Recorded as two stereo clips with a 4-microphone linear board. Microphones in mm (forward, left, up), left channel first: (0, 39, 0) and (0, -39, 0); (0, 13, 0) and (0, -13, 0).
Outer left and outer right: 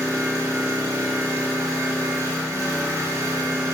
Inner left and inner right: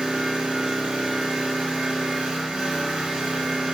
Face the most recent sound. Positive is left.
turn(degrees=-45)  # may be behind; listen again after turning